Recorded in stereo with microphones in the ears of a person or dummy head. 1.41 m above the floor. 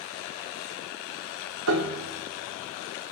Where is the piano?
70° right (ahead or behind), 0.7 m.